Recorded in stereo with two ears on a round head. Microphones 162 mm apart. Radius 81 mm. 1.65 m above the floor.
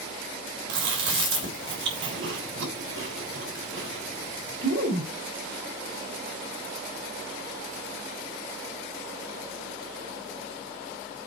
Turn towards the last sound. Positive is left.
turn(degrees=-65)  # may be behind; listen again after turning